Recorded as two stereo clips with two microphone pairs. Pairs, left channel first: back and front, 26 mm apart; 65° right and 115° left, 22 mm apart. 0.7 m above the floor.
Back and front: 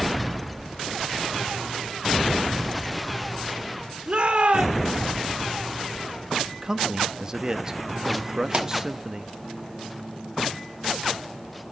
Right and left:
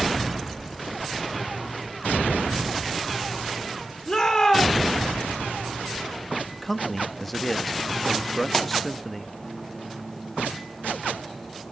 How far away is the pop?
About 1.4 m.